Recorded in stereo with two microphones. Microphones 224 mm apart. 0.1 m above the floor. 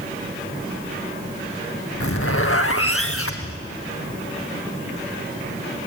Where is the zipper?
75° left (ahead or behind), 1.5 m.